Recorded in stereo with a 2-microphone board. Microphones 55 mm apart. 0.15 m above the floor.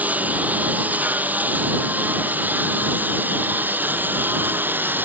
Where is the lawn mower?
30° right (ahead or behind); by 5.0 s 35° right (ahead or behind).